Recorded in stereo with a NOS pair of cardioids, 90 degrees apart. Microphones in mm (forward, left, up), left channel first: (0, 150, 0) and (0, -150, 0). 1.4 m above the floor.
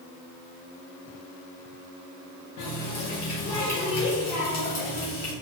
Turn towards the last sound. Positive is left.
turn(degrees=65)